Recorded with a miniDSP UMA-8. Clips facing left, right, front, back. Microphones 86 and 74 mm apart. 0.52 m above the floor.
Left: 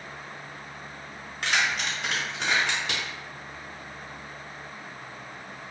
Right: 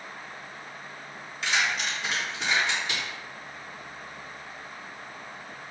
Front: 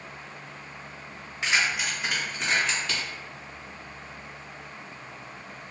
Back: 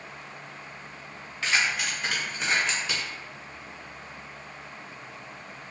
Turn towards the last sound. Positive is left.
turn(degrees=105)